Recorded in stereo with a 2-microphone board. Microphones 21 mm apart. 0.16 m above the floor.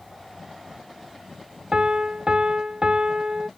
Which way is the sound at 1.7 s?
40° right (ahead or behind).